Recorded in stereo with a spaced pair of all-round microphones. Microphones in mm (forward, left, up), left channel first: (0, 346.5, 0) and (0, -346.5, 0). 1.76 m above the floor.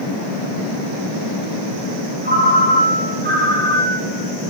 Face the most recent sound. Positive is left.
turn(degrees=-15)  # may be behind; listen again after turning